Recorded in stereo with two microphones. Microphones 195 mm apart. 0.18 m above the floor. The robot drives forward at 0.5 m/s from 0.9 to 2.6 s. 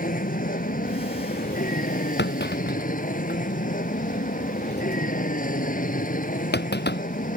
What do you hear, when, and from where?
0.0 s an aircraft: 45° left (ahead or behind)
2.2 s a clunk: 60° left (ahead or behind)